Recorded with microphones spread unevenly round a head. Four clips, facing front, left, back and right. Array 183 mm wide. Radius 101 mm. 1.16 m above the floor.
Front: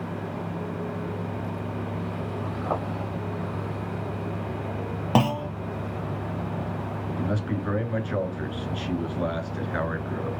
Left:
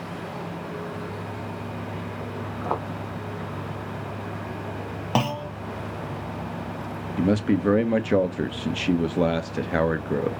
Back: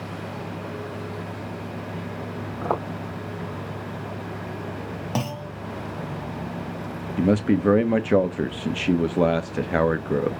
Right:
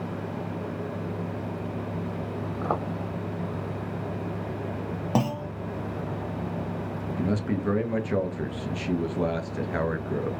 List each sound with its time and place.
2.6 s footsteps: 150° right, 3 m
5.2 s a clunk: 55° left, 0.6 m
7.2 s a man speaking: 145° left, 1.3 m